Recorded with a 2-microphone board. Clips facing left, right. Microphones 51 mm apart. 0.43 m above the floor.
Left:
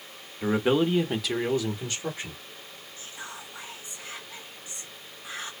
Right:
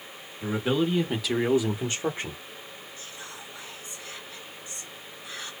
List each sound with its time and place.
0.4 s a man speaking: 30° left (ahead or behind), 1.1 m; by 2.4 s 40° right (ahead or behind), 1.2 m
3.0 s whispering: 20° left (ahead or behind), 1.0 m